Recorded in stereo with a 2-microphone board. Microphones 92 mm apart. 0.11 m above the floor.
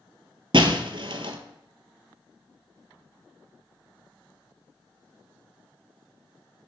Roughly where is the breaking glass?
Right.